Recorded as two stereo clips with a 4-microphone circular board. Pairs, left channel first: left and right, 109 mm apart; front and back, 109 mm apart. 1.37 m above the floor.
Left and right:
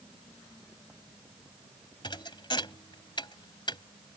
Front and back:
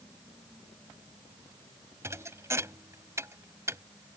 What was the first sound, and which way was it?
A thud, 120° left.